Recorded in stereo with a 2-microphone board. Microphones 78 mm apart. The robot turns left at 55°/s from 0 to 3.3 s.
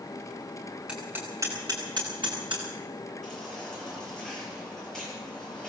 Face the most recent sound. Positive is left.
turn(degrees=5)  # may be behind; listen again after turning